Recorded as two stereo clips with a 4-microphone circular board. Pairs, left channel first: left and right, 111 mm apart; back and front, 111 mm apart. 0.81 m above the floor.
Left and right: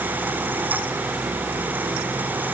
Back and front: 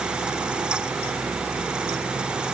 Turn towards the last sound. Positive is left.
No sound to turn to.